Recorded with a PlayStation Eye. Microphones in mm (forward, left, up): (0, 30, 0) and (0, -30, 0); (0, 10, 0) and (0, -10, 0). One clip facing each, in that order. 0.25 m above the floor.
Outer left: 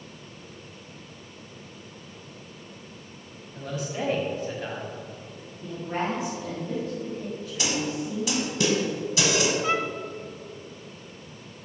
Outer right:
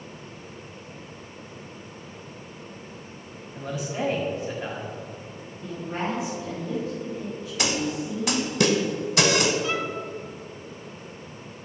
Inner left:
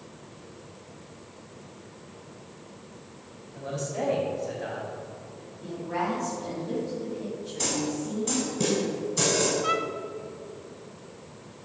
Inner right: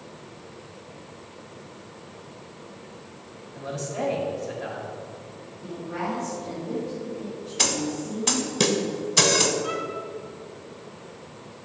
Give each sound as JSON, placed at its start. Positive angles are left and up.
{"t": 3.5, "sound": "a man speaking", "side_deg": -5, "distance_m": 1.7}
{"t": 5.6, "sound": "a woman speaking", "side_deg": 40, "distance_m": 1.9}
{"t": 7.6, "sound": "a snare drum", "side_deg": -60, "distance_m": 0.7}
{"t": 9.6, "sound": "a violin", "side_deg": 40, "distance_m": 0.5}